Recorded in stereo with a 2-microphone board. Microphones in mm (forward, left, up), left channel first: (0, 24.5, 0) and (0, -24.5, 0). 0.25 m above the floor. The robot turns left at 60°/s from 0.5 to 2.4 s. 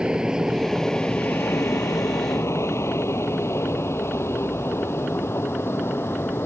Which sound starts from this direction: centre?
An aircraft, at 0.0 s.